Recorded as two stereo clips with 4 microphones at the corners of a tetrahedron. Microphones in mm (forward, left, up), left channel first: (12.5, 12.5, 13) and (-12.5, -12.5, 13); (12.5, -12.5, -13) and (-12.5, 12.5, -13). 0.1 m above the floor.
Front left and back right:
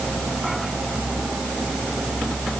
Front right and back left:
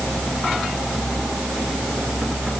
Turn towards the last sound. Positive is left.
No sound to turn to.